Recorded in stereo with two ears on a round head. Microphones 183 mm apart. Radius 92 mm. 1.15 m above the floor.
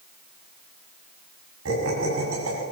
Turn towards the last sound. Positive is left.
turn(degrees=-80)